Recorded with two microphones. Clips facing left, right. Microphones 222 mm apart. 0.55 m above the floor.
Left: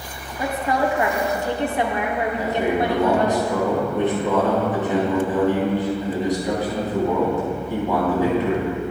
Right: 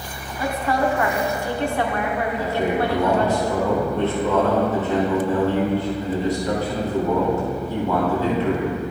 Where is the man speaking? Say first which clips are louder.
Left 1 dB; 15° left (ahead or behind), 3.5 m.